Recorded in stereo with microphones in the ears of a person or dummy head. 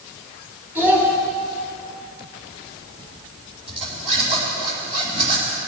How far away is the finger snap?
No finger snap in this recording.